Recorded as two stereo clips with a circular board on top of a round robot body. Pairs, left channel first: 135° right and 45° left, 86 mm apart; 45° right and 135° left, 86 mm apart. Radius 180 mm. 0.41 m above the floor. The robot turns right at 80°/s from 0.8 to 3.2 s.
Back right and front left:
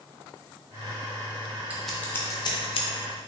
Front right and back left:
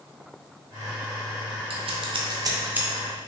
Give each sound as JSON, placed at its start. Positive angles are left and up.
{"t": 1.7, "sound": "scissors", "azimuth_deg": 120, "distance_m": 0.6}